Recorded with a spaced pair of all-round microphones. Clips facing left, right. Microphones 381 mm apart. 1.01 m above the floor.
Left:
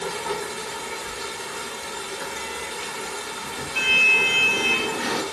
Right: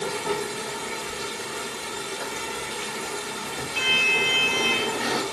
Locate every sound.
0.0 s running water: 45° right (ahead or behind), 0.8 m
1.1 s a sliding door: 15° left (ahead or behind), 0.6 m